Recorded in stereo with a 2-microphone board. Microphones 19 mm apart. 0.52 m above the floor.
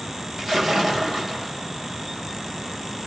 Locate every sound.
0.4 s a splash: 20° right (ahead or behind), 3.5 m